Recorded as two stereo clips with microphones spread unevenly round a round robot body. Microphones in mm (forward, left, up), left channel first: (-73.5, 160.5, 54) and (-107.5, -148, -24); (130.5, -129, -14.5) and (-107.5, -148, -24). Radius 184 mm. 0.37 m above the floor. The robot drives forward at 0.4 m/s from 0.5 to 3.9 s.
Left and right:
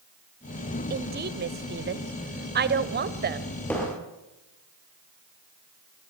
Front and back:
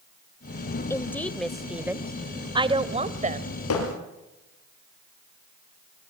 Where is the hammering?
5° right, 5.5 m.